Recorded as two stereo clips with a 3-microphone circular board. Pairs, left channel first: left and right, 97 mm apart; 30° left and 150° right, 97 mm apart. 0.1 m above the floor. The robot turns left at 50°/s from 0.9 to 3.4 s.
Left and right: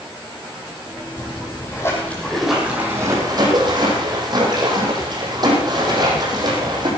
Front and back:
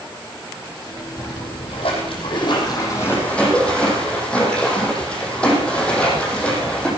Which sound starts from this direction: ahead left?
A splash, at 1.2 s.